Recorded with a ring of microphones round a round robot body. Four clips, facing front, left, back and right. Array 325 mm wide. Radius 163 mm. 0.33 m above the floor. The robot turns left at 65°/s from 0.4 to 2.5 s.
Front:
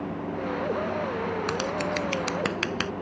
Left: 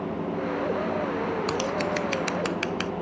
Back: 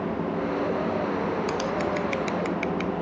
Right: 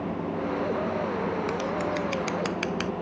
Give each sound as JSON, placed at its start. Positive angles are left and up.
{"t": 1.5, "sound": "scissors", "azimuth_deg": 70}